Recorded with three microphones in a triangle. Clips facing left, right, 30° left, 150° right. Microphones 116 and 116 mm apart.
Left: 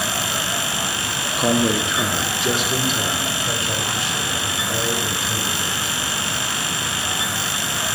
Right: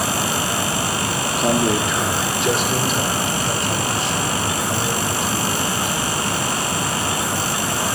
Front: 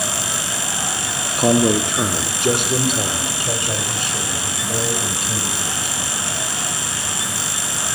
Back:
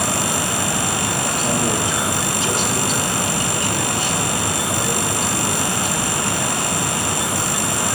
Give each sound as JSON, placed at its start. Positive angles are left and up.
{"t": 1.4, "sound": "a man speaking", "azimuth_deg": 5, "distance_m": 0.6}